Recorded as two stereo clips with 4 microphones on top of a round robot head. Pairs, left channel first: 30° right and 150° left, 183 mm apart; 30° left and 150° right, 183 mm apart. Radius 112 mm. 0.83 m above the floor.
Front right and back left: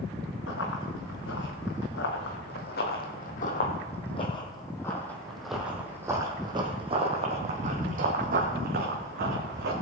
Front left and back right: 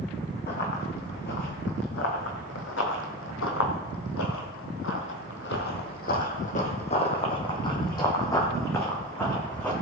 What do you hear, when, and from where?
0.5 s running footsteps: 10° right, 3 m; by 9.7 s 115° left, 3 m